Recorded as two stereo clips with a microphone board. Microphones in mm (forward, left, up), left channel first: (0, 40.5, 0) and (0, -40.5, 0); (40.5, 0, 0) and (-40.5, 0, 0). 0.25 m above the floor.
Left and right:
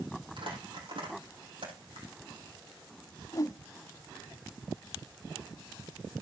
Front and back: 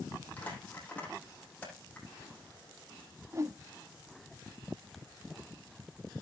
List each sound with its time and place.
0.4 s crumpling: 75° right, 6 m
3.3 s a whoosh: 130° left, 0.6 m